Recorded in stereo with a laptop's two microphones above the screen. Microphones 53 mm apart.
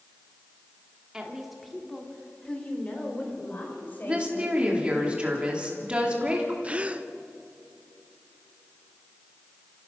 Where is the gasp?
25° right (ahead or behind), 0.8 m.